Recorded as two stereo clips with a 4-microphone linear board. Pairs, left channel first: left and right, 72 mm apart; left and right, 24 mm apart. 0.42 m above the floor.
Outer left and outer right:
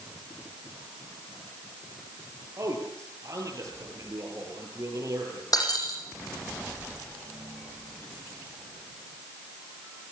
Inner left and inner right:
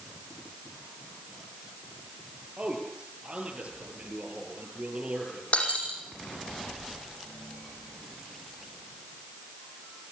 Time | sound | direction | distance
2.6 | a man speaking | 45° right (ahead or behind) | 10 m
5.5 | breaking glass | 60° left (ahead or behind) | 9 m